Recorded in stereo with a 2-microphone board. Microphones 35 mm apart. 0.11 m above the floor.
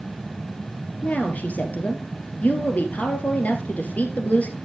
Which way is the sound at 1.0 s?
50° left (ahead or behind).